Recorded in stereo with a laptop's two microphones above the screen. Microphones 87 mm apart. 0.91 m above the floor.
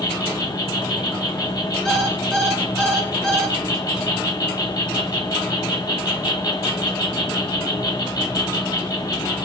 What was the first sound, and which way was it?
An insect, 50° left (ahead or behind).